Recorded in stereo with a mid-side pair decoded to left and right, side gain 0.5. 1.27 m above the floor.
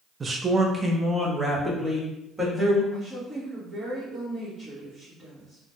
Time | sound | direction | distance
0.2 | a man speaking | 30° right | 0.6 m
2.9 | a woman speaking | 35° right | 1.4 m